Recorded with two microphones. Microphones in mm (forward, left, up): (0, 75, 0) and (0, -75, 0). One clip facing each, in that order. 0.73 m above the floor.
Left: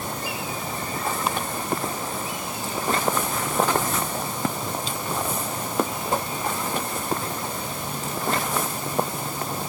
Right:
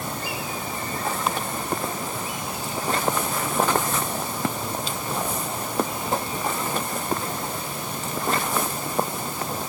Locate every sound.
Only background noise.